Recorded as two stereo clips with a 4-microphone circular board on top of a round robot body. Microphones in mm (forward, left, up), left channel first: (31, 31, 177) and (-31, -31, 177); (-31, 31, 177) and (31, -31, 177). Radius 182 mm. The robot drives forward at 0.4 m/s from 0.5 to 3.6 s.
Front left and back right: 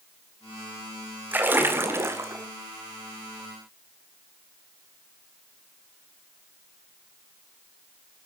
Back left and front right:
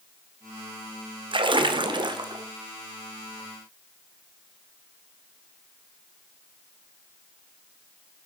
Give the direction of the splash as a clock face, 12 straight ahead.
2 o'clock.